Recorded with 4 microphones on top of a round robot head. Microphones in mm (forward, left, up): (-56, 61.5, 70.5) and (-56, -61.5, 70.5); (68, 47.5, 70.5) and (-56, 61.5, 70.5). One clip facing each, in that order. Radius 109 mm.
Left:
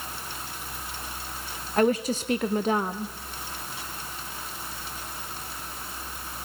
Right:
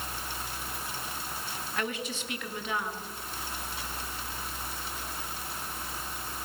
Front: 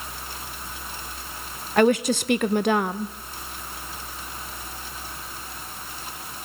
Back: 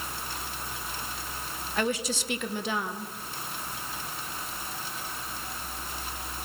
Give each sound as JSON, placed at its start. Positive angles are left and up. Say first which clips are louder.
{"t": 1.8, "sound": "a woman speaking", "louder": "left 13 dB, front 11 dB", "azimuth_deg": 30, "distance_m": 0.8}